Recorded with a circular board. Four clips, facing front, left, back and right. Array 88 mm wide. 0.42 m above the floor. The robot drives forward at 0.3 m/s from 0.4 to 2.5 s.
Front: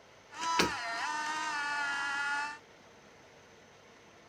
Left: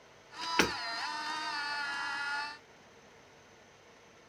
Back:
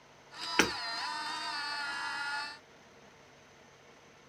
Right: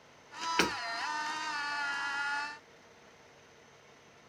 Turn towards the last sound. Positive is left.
turn(degrees=175)